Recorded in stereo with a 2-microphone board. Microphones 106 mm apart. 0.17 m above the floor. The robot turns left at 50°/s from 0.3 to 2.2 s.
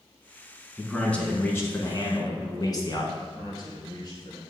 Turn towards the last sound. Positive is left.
turn(degrees=40)  # may be behind; listen again after turning